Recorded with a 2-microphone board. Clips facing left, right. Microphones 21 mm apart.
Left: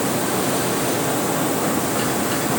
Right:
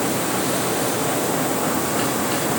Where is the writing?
I don't hear writing.